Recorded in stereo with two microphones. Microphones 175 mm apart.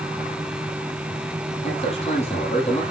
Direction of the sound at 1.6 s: 35° left (ahead or behind).